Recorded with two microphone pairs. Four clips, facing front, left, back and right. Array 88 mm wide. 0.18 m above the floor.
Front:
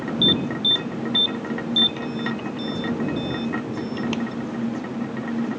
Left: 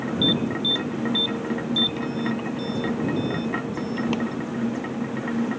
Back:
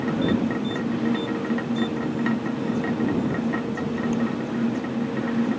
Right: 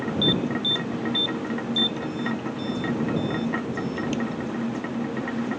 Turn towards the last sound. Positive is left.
turn(degrees=60)